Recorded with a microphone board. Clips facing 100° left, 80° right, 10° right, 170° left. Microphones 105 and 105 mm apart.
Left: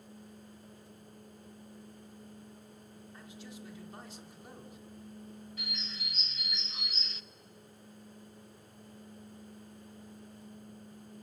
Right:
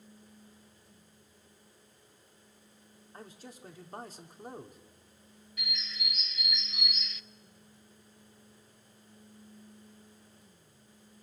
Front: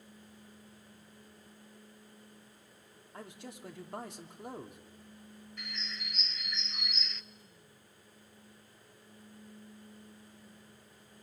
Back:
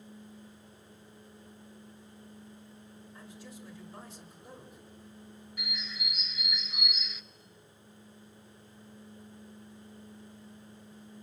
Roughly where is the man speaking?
Ahead right.